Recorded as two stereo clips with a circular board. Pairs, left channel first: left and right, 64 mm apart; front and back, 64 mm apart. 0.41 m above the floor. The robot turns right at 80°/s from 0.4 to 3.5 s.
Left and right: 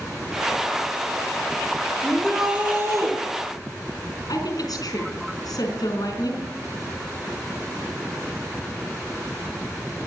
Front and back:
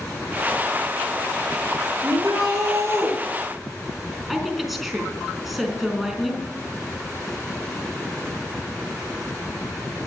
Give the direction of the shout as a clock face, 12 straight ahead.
7 o'clock.